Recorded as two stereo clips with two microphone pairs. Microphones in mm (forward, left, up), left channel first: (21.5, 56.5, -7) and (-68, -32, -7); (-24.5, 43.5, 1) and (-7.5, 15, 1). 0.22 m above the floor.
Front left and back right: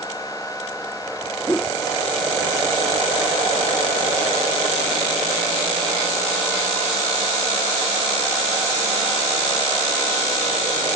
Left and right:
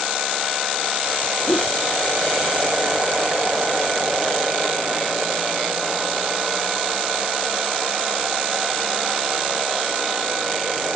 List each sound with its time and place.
1.5 s a whoosh: 125° left